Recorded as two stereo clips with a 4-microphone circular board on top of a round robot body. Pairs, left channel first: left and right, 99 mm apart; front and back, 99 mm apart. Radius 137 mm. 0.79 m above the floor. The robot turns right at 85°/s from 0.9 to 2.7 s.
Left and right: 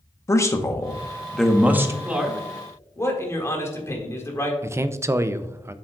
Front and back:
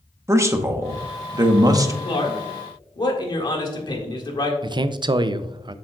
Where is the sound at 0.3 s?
135° left, 1.0 m; by 1.9 s 140° right, 1.0 m.